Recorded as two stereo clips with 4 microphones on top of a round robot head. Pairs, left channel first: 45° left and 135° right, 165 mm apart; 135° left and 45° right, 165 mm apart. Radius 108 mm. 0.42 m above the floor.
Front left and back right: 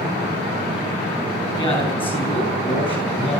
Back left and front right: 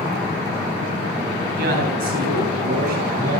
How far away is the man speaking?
About 9 m.